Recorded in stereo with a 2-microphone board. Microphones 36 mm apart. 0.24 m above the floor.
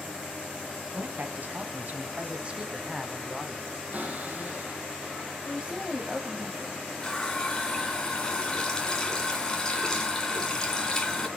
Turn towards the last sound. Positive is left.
turn(degrees=20)  # may be behind; listen again after turning